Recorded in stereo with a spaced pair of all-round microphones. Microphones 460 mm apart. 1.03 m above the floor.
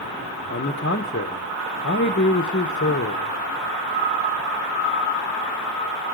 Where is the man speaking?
25° left (ahead or behind), 0.8 m.